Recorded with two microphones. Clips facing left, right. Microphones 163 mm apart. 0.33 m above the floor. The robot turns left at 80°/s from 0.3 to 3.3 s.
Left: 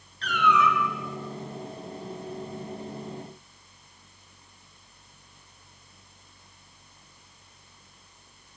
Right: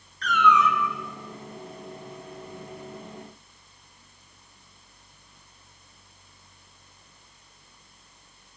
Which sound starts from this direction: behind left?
A cat meowing, at 0.2 s.